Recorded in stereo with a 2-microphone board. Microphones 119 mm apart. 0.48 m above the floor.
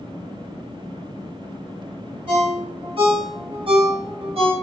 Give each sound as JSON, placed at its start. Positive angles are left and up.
{"t": 2.3, "sound": "a ringtone", "side_deg": -55, "distance_m": 1.7}